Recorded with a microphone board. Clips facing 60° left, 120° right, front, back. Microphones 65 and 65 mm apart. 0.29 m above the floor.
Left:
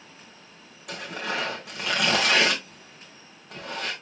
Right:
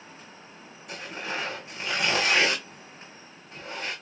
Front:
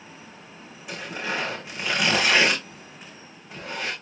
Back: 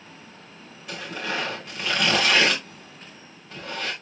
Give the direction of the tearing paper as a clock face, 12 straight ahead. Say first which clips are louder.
Left 3 dB, even; 10 o'clock.